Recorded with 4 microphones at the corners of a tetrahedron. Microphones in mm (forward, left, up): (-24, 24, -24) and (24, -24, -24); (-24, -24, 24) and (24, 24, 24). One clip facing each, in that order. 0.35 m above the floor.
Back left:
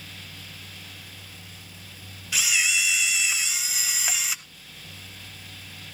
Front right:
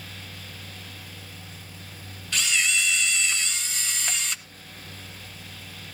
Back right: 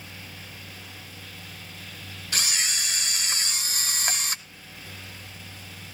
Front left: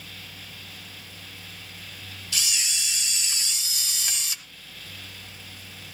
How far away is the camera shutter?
About 0.8 m.